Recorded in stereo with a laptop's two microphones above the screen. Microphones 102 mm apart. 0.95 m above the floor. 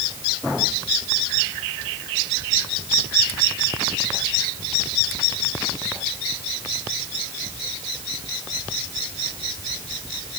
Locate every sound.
Only background noise.